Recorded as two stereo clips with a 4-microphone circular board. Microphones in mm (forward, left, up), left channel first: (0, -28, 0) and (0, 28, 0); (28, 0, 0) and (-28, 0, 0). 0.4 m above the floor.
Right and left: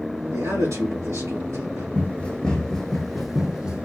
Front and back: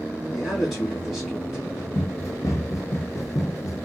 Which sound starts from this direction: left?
A man speaking, at 0.3 s.